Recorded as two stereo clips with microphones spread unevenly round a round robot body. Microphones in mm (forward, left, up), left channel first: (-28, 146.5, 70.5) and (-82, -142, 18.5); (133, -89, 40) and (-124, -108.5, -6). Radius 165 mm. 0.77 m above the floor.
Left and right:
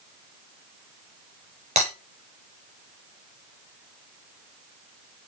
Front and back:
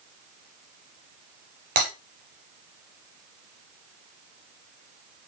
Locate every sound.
1.8 s breaking glass: 170° right, 3 m